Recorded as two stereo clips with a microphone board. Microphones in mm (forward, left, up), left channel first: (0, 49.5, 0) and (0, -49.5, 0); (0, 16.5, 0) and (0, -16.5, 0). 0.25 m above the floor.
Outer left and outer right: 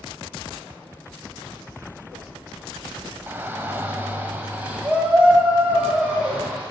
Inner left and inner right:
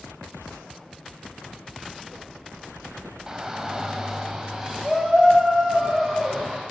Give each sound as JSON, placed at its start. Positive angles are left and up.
{"t": 3.3, "sound": "a shout", "side_deg": -20, "distance_m": 1.2}